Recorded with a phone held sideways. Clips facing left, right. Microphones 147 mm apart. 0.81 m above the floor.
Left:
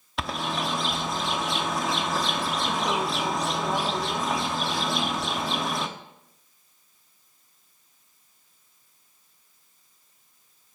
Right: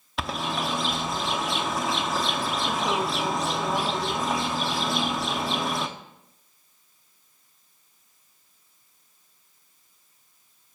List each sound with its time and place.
0.2 s a bird: centre (ahead or behind), 0.7 m